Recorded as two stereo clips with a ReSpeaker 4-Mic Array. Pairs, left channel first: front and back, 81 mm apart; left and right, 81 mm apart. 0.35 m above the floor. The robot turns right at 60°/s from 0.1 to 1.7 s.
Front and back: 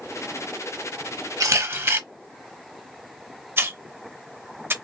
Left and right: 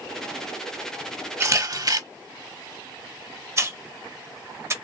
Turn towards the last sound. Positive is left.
turn(degrees=-130)